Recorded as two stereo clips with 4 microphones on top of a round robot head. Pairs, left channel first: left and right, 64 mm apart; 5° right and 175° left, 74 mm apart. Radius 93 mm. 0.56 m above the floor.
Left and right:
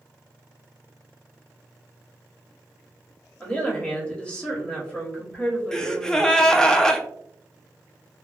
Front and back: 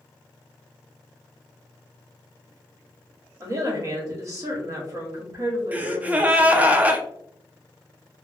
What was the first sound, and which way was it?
A woman speaking, 160° left.